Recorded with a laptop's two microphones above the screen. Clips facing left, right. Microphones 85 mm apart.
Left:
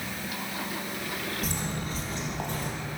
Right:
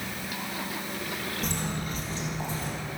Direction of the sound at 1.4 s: 5° left (ahead or behind).